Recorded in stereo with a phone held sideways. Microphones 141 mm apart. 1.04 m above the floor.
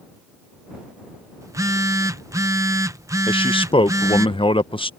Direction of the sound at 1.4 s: 20° right (ahead or behind).